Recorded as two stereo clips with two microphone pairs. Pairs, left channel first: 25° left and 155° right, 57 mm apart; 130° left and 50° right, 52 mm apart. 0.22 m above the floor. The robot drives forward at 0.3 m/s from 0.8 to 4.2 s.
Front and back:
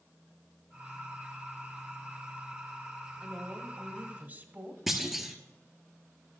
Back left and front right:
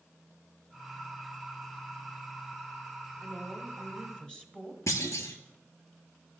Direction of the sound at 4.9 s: 115° left.